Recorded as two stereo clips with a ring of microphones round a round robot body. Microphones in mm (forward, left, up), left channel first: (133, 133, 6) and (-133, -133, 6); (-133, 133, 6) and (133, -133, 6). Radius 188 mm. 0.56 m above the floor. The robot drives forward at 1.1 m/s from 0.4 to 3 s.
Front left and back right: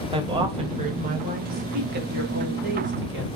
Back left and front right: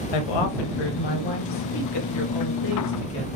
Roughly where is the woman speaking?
Behind left.